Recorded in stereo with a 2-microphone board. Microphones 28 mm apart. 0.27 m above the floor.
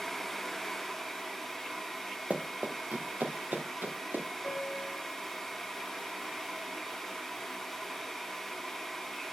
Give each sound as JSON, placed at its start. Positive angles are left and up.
{"t": 2.3, "sound": "running footsteps", "side_deg": -50, "distance_m": 1.5}
{"t": 4.4, "sound": "a piano", "side_deg": 75, "distance_m": 6.5}